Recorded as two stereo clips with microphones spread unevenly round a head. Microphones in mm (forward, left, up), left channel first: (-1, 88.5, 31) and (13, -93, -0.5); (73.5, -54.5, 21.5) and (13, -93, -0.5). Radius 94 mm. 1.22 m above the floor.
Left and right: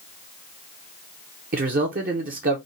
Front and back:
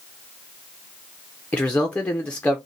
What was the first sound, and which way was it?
A man speaking, 45° right.